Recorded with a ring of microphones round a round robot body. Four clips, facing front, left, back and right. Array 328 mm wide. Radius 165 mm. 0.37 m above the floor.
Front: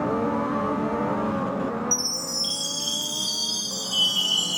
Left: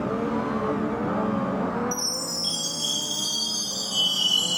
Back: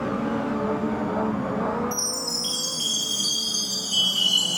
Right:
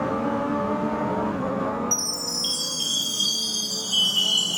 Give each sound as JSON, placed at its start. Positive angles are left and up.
{"t": 1.9, "sound": "a chime", "azimuth_deg": -110, "distance_m": 2.0}